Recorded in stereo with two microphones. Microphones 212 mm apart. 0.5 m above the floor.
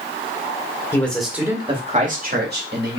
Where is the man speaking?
10° left (ahead or behind), 1.3 m; by 3.0 s 60° right (ahead or behind), 1.8 m.